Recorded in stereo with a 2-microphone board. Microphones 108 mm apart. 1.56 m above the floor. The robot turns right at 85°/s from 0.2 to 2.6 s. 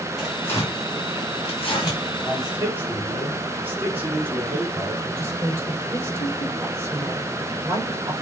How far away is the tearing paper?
About 4 m.